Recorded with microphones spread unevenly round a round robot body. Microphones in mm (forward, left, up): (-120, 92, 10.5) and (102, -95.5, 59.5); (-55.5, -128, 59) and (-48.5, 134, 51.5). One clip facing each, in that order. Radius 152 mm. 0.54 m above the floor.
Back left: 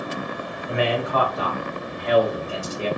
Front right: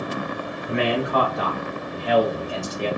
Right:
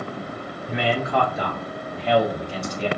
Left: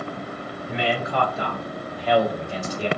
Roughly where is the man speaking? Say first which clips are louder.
Front right 1 dB, right 2 dB; behind right.